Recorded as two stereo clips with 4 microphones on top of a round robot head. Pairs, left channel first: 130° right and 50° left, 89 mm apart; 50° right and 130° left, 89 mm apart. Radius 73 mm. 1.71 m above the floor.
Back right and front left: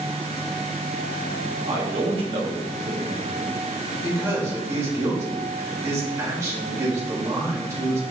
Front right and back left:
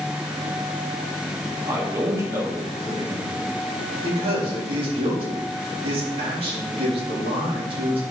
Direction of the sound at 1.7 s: 70° left.